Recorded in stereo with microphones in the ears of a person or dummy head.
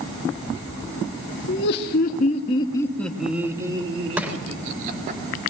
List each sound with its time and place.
1.5 s laughter: 60° left (ahead or behind), 2.5 m; by 5.2 s 45° right (ahead or behind), 4 m
4.2 s crushing: 10° right (ahead or behind), 3.5 m